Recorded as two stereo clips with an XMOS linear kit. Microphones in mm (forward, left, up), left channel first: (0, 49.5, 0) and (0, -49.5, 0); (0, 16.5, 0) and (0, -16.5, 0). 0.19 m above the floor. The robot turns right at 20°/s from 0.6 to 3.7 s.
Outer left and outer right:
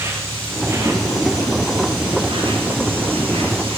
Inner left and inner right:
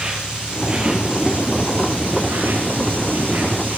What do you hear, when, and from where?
0.0 s an insect: 150° right, 3 m; by 3.8 s 90° right, 3 m